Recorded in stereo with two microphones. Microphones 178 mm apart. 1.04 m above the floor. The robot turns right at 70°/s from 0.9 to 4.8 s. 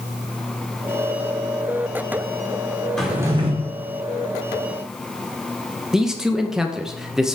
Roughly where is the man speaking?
Centre.